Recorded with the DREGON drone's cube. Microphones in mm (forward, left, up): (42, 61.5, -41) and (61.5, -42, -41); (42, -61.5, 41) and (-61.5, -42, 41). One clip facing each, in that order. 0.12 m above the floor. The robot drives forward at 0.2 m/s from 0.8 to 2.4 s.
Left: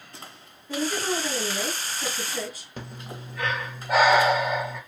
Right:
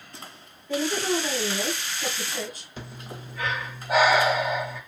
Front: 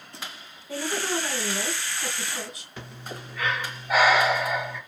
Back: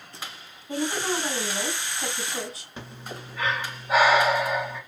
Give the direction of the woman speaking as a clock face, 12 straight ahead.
6 o'clock.